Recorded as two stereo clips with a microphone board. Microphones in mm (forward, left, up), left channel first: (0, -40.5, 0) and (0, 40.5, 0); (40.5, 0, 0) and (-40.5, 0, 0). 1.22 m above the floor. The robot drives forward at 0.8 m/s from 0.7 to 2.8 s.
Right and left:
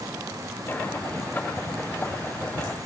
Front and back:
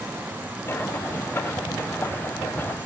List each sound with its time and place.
Only background noise.